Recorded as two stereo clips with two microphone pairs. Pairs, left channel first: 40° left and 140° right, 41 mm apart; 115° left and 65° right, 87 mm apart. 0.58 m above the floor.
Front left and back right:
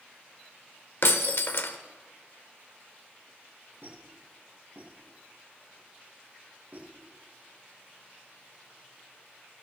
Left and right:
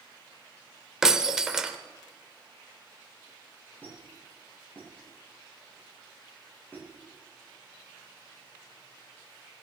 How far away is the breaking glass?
About 0.9 m.